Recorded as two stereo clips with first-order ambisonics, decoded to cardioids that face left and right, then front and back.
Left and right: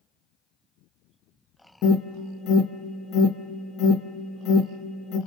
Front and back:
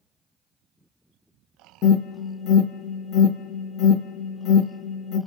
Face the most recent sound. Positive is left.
turn(degrees=50)